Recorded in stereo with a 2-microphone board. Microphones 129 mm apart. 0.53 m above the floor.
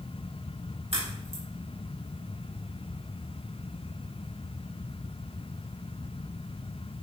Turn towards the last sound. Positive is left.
turn(degrees=-50)  # may be behind; listen again after turning